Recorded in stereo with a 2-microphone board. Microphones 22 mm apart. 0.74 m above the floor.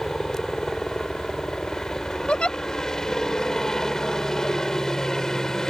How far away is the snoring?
I don't hear snoring.